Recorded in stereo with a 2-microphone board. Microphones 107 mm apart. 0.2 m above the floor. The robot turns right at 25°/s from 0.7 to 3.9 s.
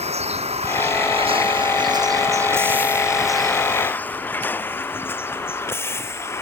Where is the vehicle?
80° right; by 6.4 s 25° left (ahead or behind).